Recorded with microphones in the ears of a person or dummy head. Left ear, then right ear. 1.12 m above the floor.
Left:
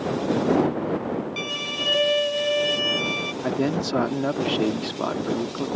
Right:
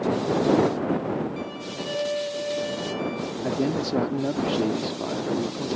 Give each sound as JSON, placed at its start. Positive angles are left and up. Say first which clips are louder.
{"t": 1.4, "sound": "a violin", "louder": "left 6 dB", "side_deg": 70}
{"t": 3.4, "sound": "a man speaking", "louder": "right 1 dB", "side_deg": 35}